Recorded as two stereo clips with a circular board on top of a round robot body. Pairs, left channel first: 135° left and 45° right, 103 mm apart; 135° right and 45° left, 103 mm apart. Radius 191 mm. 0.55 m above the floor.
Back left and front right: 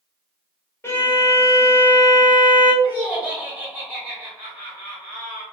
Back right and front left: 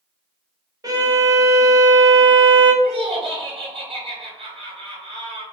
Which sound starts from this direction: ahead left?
Laughter, at 2.8 s.